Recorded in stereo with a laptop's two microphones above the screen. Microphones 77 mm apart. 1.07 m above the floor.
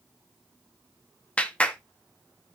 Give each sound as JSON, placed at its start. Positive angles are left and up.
{"t": 1.4, "sound": "a clap", "side_deg": 20, "distance_m": 0.9}